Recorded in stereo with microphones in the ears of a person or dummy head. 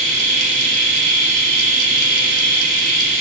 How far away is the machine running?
About 2.5 m.